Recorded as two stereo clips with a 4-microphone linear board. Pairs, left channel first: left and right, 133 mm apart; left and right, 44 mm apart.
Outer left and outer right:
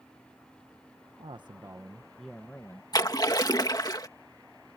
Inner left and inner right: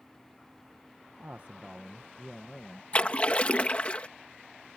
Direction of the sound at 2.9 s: 30° left (ahead or behind).